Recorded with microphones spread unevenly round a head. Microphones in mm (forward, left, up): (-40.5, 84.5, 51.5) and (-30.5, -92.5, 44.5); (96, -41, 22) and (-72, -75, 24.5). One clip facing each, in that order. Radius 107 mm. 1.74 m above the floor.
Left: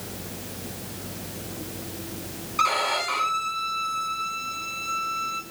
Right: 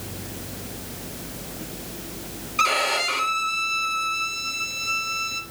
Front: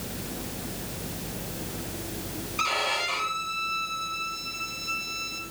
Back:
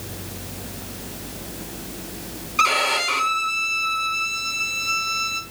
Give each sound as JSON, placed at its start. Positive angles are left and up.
{"t": 2.6, "sound": "a violin", "azimuth_deg": -150, "distance_m": 2.5}